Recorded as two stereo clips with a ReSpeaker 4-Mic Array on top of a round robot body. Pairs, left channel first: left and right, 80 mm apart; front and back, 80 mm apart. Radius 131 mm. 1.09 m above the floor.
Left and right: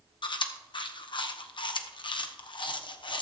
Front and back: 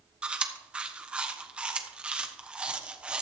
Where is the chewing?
105° left, 1.1 m.